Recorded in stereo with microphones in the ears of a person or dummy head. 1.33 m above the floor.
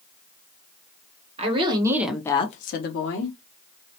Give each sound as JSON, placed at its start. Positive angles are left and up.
{"t": 1.4, "sound": "a woman speaking", "side_deg": -30, "distance_m": 0.8}